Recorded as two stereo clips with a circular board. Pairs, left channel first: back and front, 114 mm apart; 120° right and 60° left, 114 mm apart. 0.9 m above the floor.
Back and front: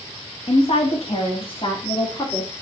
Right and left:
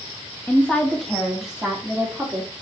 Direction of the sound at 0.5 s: 165° left.